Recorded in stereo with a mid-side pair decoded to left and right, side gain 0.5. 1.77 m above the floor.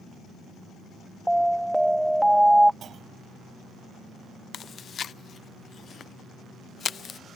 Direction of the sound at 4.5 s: 40° left.